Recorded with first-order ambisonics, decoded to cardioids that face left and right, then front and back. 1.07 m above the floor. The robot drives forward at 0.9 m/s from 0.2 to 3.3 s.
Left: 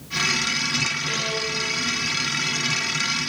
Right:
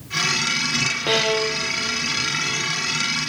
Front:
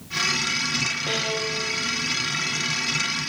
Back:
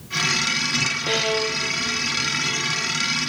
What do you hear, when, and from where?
1.1 s a violin: 100° right, 1.0 m; by 2.9 s 155° right, 2 m